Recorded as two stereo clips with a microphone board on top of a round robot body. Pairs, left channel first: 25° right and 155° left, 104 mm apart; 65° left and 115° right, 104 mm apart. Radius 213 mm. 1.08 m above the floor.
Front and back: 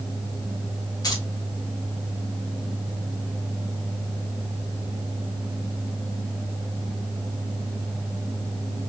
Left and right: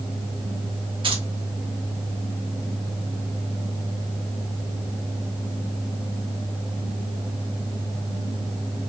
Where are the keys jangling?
75° right, 1.4 m.